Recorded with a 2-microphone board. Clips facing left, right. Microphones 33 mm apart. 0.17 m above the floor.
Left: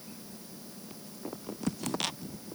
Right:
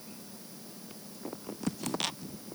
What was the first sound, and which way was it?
Only background noise.